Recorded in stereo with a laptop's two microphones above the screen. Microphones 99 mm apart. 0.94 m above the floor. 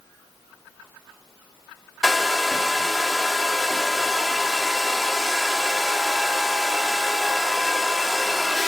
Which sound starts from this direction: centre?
A hair dryer, at 2.0 s.